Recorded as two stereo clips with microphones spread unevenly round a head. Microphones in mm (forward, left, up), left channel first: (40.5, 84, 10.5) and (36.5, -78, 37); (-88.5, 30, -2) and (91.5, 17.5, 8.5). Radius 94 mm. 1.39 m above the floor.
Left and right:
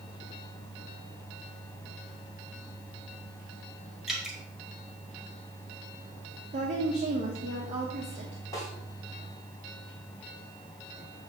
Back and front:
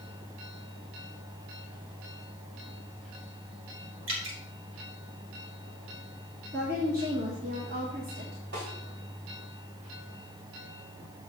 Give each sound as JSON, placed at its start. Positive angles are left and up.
{"t": 4.1, "sound": "dripping", "azimuth_deg": -5, "distance_m": 1.8}
{"t": 6.5, "sound": "a woman speaking", "azimuth_deg": -45, "distance_m": 1.2}
{"t": 8.5, "sound": "a snare drum", "azimuth_deg": 15, "distance_m": 2.5}